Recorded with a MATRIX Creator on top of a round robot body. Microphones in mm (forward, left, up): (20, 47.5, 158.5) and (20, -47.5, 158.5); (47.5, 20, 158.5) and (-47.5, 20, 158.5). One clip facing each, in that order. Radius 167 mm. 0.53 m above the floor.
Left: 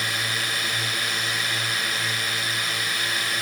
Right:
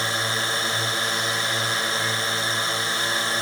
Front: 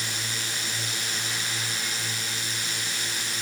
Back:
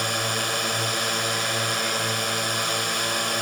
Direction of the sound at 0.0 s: 150° right.